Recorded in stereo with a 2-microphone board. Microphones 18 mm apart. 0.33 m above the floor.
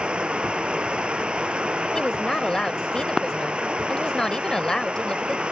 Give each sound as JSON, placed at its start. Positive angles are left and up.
{"t": 0.0, "sound": "running water", "side_deg": -85}
{"t": 1.9, "sound": "a woman speaking", "side_deg": 40}